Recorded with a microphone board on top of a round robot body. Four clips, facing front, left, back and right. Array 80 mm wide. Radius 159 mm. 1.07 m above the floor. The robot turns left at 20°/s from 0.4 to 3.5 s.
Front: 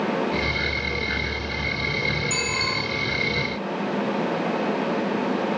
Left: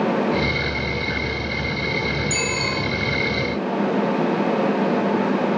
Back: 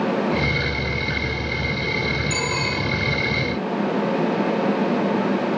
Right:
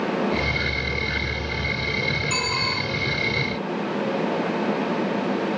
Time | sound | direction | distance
2.3 | a bicycle bell | 85° right | 9.5 m